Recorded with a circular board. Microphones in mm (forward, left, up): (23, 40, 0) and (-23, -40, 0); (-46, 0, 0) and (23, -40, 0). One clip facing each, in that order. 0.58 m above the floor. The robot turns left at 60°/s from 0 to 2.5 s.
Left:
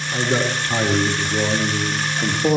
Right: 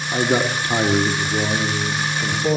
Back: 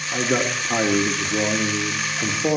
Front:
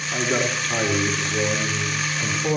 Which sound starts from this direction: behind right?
A man speaking, at 0.1 s.